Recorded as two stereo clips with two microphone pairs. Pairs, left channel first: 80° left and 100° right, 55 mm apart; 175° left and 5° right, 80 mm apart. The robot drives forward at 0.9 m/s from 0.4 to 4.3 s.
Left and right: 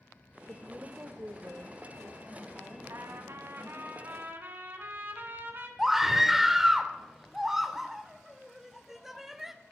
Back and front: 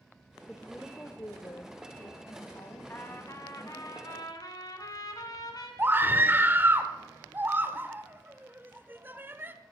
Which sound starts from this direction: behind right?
A trumpet, at 2.9 s.